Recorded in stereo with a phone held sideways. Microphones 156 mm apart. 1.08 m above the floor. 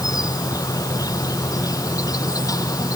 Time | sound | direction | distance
0.0 | an insect | 20° left (ahead or behind) | ?